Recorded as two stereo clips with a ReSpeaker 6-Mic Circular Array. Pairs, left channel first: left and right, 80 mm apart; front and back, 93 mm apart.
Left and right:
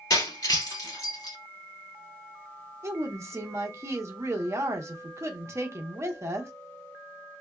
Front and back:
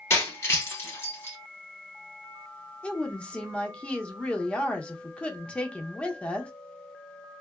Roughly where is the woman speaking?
Right.